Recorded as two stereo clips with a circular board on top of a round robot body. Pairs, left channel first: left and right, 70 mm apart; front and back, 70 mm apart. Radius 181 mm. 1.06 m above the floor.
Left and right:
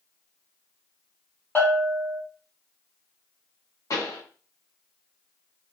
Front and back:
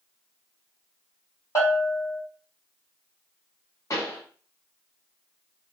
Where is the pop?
45° left, 0.7 m.